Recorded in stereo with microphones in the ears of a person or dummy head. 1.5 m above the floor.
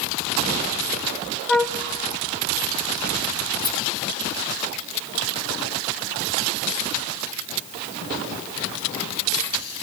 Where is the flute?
Centre (ahead or behind), 1.0 m.